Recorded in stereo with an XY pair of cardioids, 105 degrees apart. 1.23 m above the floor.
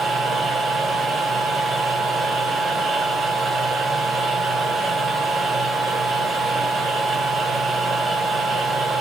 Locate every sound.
0.0 s a machine running: 50° right, 1.4 m